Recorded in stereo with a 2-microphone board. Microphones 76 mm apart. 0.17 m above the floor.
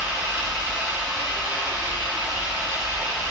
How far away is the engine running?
About 0.9 m.